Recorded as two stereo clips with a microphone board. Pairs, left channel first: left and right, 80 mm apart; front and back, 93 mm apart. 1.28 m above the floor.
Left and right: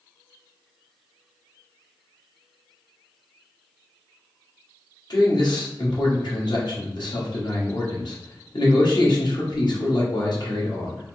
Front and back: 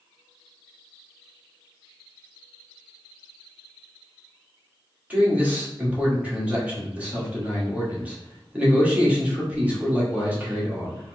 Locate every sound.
5.1 s a man speaking: 105° left, 1.4 m